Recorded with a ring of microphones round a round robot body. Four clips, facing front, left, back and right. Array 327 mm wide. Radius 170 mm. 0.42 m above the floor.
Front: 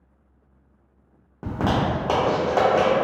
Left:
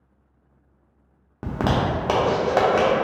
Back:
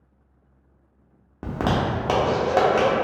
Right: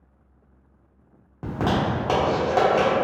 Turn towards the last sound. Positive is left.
turn(degrees=120)